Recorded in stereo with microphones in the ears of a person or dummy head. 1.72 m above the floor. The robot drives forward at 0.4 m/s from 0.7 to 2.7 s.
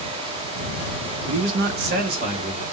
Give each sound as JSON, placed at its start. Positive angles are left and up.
{"t": 1.3, "sound": "a man speaking", "side_deg": -70, "distance_m": 0.6}